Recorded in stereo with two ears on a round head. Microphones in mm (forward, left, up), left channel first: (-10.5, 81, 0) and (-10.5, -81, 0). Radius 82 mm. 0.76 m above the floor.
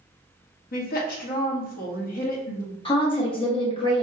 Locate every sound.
0.7 s a woman speaking: 50° left (ahead or behind), 0.7 m
2.9 s a woman speaking: 30° left (ahead or behind), 0.8 m